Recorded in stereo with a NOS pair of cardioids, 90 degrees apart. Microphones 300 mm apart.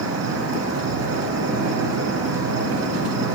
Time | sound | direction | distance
0.0 | an insect | 55° right | 2.5 m